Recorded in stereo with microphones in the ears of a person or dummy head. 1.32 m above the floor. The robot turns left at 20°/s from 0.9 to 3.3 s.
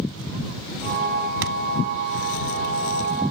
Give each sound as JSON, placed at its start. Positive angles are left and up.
{"t": 1.4, "sound": "a thud", "side_deg": -70}